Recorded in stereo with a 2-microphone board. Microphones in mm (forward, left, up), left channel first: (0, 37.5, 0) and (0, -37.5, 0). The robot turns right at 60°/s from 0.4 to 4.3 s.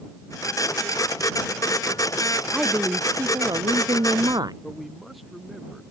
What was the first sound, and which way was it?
A woman speaking, 170° right.